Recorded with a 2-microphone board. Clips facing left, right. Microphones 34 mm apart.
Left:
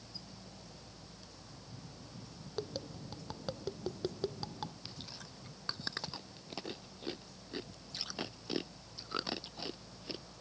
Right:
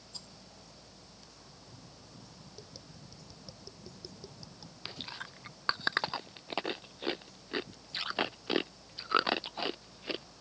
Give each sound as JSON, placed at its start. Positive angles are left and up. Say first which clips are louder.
{"t": 0.1, "sound": "a rattle", "louder": "right 2 dB", "side_deg": -85}
{"t": 2.6, "sound": "tapping", "louder": "left 14 dB", "side_deg": 55}
{"t": 4.8, "sound": "chewing", "louder": "right 6 dB", "side_deg": -45}